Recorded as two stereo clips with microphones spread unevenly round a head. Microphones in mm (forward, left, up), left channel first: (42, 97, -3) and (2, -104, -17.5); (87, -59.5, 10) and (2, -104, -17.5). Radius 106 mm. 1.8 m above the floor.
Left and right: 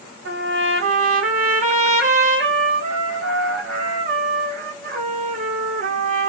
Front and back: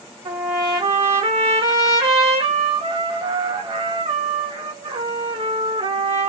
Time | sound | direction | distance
0.2 | a trumpet | 145° right | 2 m